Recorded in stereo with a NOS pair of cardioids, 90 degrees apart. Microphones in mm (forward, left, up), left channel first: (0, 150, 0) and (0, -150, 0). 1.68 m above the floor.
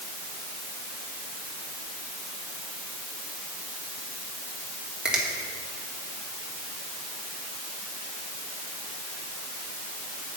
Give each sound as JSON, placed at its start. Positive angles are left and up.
{"t": 5.0, "sound": "a finger snap", "azimuth_deg": 0, "distance_m": 2.5}